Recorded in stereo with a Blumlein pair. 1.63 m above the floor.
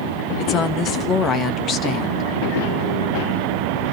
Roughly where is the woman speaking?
Ahead left.